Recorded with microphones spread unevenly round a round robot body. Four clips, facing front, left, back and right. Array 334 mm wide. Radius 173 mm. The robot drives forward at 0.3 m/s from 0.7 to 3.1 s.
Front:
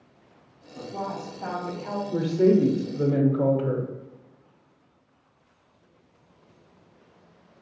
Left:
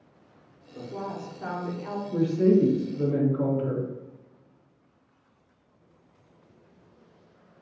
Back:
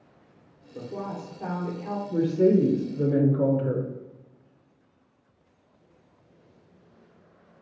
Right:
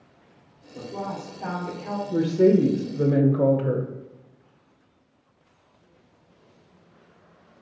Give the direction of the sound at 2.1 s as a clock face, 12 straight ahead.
1 o'clock.